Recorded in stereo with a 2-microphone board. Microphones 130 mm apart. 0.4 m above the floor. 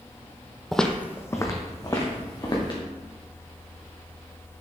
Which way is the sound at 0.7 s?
Centre (ahead or behind).